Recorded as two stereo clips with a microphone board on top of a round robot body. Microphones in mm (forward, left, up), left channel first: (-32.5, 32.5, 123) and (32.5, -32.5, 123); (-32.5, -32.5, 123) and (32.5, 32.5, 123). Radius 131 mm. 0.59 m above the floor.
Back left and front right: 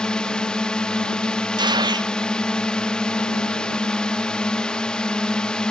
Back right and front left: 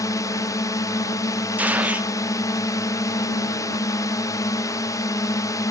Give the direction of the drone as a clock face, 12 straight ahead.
5 o'clock.